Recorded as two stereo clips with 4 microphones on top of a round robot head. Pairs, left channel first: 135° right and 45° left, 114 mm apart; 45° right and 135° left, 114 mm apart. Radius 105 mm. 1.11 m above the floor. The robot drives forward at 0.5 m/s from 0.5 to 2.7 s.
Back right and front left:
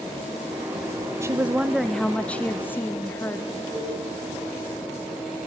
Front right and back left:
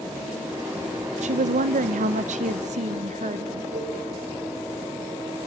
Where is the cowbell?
125° left, 5 m.